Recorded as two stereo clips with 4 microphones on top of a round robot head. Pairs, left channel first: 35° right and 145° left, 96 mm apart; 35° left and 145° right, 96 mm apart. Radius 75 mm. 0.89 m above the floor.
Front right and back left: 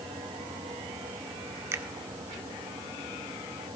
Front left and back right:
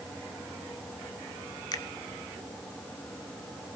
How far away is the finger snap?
About 1.6 m.